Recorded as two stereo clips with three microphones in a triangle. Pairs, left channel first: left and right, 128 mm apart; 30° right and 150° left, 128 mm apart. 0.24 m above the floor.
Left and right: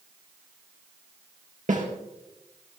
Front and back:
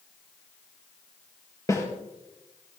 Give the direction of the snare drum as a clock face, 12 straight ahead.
3 o'clock.